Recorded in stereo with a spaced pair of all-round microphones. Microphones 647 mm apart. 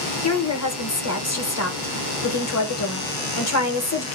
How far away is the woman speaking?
About 1.2 m.